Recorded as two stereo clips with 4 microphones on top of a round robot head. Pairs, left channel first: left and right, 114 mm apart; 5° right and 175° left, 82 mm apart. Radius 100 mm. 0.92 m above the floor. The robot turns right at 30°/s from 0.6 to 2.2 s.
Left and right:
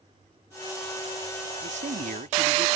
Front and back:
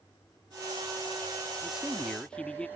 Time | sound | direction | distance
1.6 | a man speaking | 100° right | ?